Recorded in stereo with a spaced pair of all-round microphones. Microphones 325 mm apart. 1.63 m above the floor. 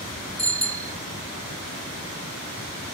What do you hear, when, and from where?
0.4 s a bicycle bell: 80° right